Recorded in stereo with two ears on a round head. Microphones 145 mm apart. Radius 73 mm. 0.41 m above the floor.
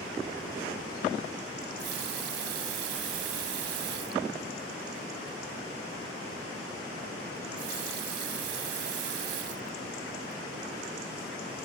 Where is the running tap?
70° right (ahead or behind).